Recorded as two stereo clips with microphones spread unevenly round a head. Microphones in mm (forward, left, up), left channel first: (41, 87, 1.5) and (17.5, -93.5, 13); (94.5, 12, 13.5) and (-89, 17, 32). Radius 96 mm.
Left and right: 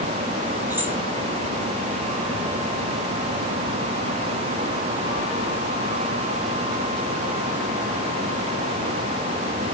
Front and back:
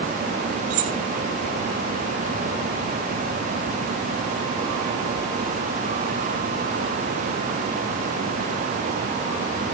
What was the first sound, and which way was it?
Keys jangling, 175° right.